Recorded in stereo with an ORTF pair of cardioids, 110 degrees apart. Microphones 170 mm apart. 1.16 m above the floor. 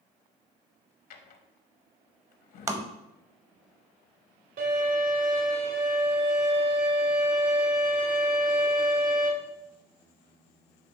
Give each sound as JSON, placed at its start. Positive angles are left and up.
{"t": 1.1, "sound": "a drawer", "azimuth_deg": 65, "distance_m": 1.0}
{"t": 2.7, "sound": "tapping", "azimuth_deg": -20, "distance_m": 0.8}
{"t": 4.6, "sound": "a violin", "azimuth_deg": -65, "distance_m": 2.5}